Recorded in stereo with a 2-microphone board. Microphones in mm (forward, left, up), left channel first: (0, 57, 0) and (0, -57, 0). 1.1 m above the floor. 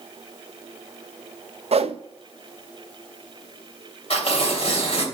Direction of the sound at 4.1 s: 60° left (ahead or behind).